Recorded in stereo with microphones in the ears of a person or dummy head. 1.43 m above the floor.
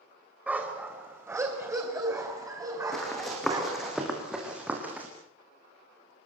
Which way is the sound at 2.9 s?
Centre (ahead or behind).